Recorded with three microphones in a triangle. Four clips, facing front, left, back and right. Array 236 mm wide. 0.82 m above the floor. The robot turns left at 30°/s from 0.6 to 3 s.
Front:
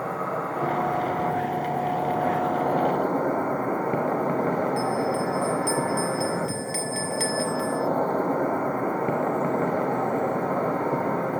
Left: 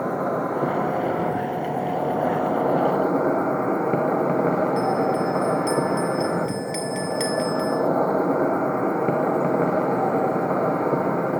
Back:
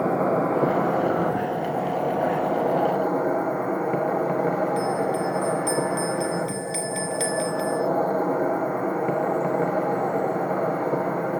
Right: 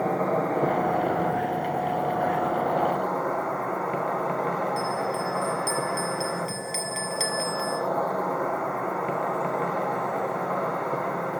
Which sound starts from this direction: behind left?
A bell, at 4.8 s.